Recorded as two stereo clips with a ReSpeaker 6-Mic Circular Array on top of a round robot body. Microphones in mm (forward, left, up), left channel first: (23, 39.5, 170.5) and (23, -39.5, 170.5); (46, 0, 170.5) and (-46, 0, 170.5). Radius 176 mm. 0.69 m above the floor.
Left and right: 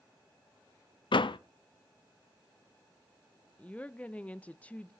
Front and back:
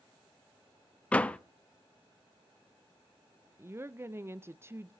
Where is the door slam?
75° left, 0.5 m.